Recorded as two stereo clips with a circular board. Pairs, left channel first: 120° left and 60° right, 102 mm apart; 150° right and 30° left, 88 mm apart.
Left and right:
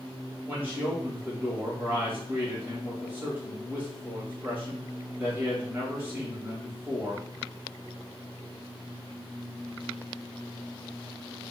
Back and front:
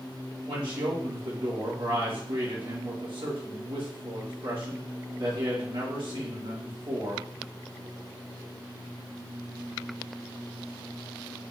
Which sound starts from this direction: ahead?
A man speaking, at 0.5 s.